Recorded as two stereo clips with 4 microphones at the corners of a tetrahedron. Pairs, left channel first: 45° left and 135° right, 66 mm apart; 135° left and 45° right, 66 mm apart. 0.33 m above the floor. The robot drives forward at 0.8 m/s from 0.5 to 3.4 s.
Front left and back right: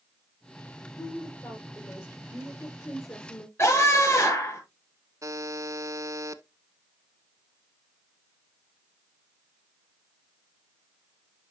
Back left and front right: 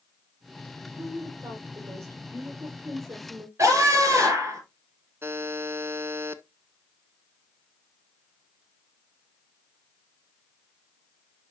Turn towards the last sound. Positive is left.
turn(degrees=-100)